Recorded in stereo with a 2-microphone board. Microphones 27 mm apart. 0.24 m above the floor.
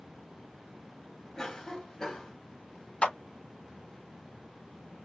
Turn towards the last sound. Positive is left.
turn(degrees=55)  # may be behind; listen again after turning